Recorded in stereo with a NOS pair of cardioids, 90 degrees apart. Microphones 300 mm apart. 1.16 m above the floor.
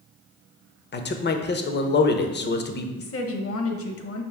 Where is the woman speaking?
50° left, 0.8 m.